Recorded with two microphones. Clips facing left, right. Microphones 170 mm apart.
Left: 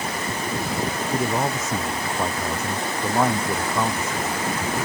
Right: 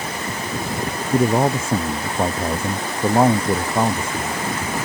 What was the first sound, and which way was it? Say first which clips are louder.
A man speaking: right 8 dB; 30° right (ahead or behind).